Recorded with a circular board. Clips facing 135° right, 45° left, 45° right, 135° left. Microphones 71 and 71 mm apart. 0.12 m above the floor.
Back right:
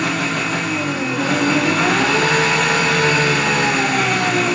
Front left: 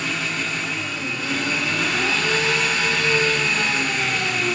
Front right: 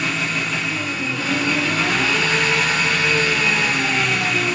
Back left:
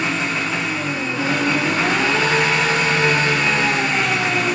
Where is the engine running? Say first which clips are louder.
Back right 6 dB, back left 2 dB; 160° right, 2.5 m.